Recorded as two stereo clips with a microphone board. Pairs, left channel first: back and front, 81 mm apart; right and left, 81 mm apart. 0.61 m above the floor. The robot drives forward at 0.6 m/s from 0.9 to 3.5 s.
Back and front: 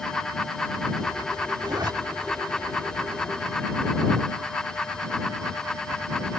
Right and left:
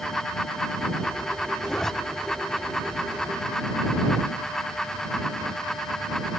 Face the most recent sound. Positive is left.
turn(degrees=-120)